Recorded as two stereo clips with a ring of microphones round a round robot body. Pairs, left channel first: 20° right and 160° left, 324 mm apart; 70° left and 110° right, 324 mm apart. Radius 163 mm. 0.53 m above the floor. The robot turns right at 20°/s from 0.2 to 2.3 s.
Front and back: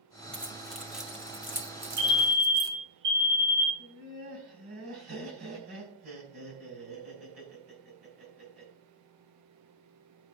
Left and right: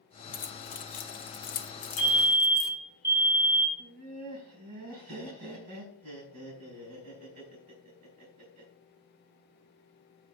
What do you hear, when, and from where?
0.3 s keys jangling: 55° left, 0.7 m; by 2.7 s 95° left, 0.7 m
2.0 s a fire alarm: 160° left, 3.5 m; by 3.7 s 165° left, 3.5 m
3.8 s laughter: 155° right, 4 m